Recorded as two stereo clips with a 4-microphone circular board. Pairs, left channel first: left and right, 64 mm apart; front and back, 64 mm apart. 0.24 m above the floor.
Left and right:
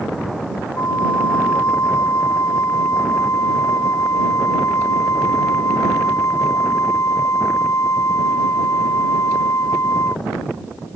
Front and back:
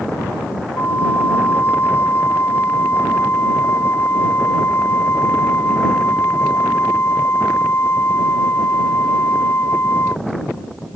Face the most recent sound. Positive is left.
turn(degrees=55)